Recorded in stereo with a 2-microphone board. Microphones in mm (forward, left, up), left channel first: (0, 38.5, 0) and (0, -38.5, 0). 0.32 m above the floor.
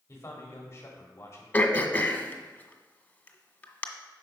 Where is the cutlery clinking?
No cutlery clinking in this recording.